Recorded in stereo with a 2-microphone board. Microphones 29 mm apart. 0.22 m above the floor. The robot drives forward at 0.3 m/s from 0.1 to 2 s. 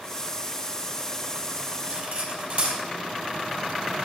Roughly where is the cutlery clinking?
Right.